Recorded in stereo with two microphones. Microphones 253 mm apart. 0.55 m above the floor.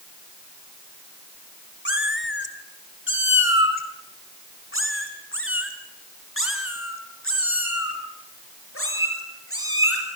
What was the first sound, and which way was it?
A cat meowing, 50° left (ahead or behind).